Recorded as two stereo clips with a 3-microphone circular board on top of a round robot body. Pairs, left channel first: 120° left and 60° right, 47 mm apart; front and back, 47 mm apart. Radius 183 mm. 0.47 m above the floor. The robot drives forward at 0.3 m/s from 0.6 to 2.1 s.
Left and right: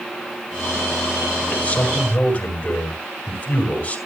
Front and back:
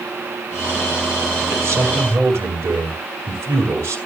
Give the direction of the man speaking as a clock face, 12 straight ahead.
6 o'clock.